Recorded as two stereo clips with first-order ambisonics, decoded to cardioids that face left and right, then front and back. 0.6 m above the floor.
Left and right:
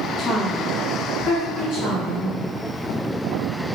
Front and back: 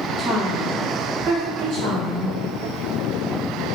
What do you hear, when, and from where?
0.2 s a woman speaking: 135° left, 0.7 m; by 2.4 s 130° left, 2.0 m